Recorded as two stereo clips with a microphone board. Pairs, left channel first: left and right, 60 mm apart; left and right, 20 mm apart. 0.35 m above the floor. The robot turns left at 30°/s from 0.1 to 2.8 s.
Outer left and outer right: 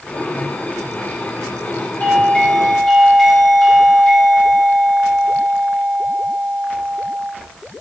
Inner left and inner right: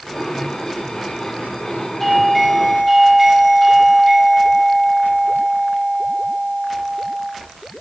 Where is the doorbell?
25° left (ahead or behind), 3 m; by 7.3 s 5° left (ahead or behind), 3 m.